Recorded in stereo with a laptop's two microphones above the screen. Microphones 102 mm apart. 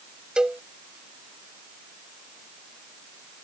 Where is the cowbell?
10° right (ahead or behind).